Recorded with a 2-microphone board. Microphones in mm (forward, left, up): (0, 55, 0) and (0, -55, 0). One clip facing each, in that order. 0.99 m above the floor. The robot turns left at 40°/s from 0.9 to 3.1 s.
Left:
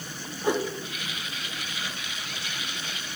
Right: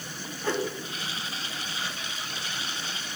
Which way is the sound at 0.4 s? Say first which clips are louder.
Left 3 dB; 15° left (ahead or behind).